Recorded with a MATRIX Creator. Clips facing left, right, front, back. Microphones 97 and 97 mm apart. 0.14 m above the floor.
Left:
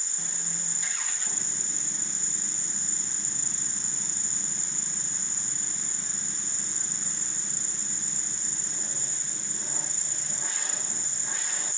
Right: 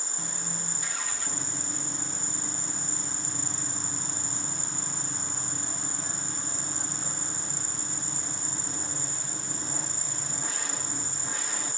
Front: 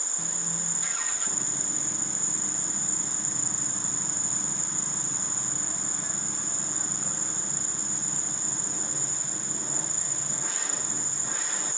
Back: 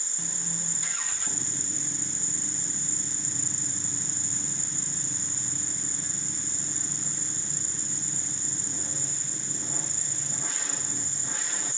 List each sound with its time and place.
0.0 s an insect: 40° right